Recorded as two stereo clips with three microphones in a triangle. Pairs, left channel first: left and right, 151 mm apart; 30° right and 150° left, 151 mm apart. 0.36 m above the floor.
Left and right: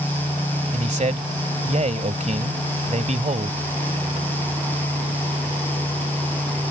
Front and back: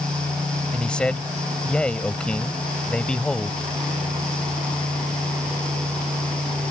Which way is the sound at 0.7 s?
110° right.